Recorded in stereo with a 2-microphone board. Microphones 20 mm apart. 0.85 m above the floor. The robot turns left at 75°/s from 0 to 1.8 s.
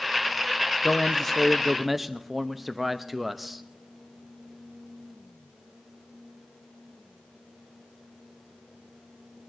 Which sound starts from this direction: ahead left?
A man speaking, at 0.8 s.